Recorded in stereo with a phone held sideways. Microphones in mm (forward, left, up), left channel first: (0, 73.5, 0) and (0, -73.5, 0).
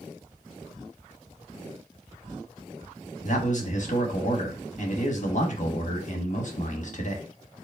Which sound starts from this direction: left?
A man speaking, at 3.2 s.